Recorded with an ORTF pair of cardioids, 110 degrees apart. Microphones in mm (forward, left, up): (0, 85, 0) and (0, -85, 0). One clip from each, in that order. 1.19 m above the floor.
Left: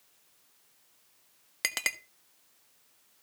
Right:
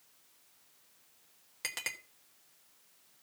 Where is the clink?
45° left, 1.4 m.